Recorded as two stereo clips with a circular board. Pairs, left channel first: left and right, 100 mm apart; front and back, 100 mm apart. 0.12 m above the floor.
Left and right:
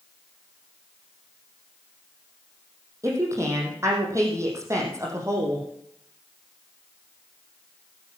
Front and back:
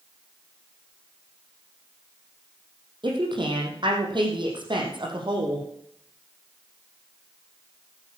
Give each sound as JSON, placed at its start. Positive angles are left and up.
{"t": 3.0, "sound": "a woman speaking", "azimuth_deg": -150, "distance_m": 4.5}